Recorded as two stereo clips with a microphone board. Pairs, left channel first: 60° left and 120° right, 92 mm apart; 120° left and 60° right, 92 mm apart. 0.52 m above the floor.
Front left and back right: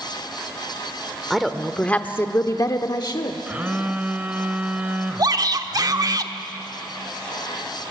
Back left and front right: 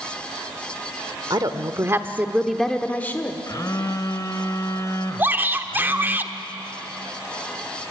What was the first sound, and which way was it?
A woman speaking, 35° right.